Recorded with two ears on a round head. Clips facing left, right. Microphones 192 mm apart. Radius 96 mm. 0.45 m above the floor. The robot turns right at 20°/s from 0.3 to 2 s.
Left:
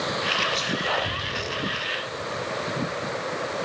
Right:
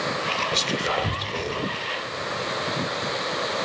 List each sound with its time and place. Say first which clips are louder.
0.5 s whispering: right 4 dB; 30° right (ahead or behind), 1.6 m; by 1.7 s 45° right (ahead or behind), 1.6 m